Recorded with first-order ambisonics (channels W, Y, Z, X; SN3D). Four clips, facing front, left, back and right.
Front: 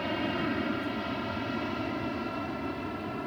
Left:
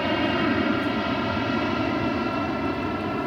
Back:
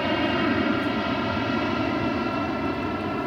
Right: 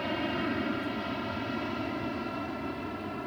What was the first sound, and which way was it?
An aircraft, 135° left.